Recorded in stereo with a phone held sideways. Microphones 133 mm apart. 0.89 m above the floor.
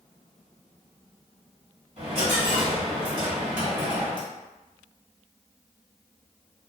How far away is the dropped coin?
About 1.4 m.